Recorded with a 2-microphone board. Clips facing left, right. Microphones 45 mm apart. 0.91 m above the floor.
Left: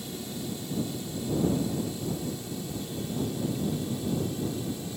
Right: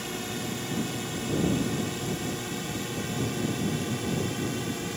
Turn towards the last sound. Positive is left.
turn(degrees=-65)  # may be behind; listen again after turning